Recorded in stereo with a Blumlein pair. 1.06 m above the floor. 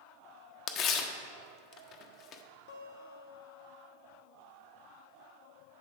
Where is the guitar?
55° left, 1.1 m.